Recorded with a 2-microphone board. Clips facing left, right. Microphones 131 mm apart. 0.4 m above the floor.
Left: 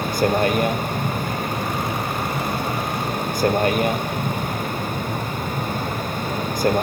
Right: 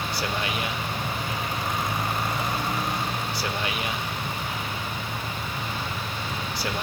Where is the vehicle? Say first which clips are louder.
Left 10 dB; 50° left (ahead or behind).